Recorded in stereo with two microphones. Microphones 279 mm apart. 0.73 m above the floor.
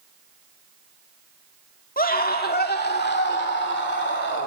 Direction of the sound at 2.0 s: 30° left (ahead or behind).